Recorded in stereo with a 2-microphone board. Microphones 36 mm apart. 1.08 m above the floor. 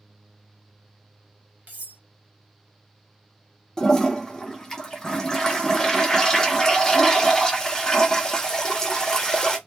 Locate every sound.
1.7 s cutlery clinking: 45° right (ahead or behind), 0.9 m
3.8 s a toilet flushing: 15° left (ahead or behind), 0.7 m